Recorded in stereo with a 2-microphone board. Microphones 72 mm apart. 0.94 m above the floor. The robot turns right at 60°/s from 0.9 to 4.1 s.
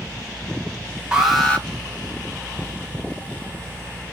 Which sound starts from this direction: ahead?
An alarm, at 1.1 s.